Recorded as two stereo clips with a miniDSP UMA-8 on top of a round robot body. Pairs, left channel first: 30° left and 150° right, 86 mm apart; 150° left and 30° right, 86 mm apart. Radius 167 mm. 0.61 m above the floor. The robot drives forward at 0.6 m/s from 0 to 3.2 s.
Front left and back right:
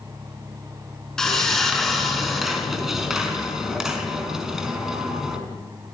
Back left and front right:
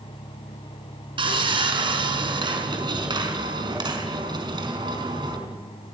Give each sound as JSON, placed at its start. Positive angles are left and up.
{"t": 1.2, "sound": "sawing", "azimuth_deg": -55, "distance_m": 6.0}